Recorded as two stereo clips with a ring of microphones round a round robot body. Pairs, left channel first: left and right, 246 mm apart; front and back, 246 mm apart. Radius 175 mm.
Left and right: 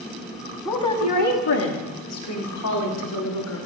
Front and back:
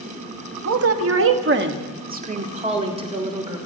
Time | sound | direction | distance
0.7 | a woman speaking | 170° left | 1.4 m